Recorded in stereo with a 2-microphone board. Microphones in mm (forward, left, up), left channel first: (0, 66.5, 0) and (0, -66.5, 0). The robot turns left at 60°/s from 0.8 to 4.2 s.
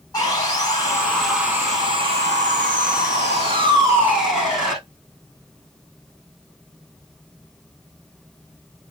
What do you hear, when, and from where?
0.1 s sawing: 30° left, 8 m; by 4.8 s 175° right, 8 m